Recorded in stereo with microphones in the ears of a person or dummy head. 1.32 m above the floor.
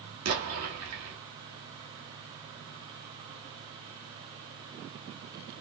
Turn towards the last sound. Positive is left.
turn(degrees=-70)  # may be behind; listen again after turning